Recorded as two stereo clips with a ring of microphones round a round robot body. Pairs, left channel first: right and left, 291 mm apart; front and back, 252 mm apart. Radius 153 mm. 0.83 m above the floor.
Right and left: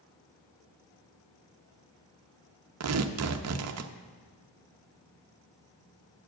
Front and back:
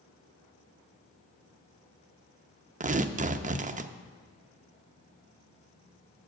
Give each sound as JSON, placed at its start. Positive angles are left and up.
{"t": 2.8, "sound": "tearing paper", "azimuth_deg": 120, "distance_m": 0.6}